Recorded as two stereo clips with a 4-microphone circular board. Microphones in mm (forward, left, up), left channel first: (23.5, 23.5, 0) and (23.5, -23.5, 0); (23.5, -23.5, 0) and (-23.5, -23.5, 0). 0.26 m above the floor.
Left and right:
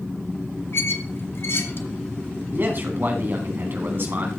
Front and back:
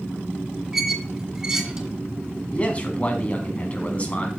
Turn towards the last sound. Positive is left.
turn(degrees=-55)